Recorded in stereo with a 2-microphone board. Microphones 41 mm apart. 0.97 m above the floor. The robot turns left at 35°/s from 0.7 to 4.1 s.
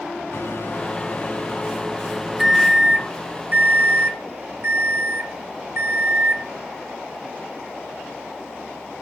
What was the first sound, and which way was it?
A microwave, 60° left.